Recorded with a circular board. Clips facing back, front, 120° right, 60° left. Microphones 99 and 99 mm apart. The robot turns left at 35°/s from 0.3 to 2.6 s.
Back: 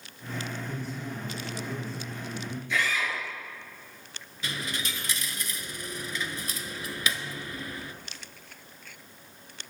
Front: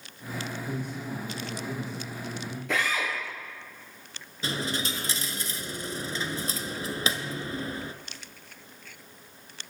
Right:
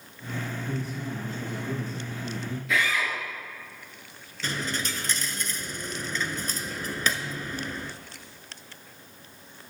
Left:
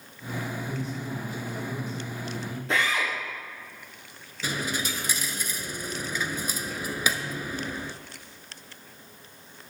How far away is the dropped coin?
About 0.6 m.